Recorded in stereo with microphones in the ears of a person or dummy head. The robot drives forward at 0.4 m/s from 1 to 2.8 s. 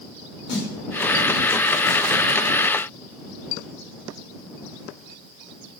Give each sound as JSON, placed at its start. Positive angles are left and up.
{"t": 0.5, "sound": "a snare drum", "side_deg": 50, "distance_m": 1.9}